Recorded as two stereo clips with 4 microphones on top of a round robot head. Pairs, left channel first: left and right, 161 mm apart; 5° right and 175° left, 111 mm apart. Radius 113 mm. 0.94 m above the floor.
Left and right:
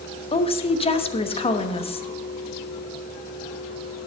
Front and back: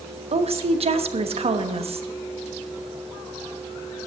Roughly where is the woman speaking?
Behind left.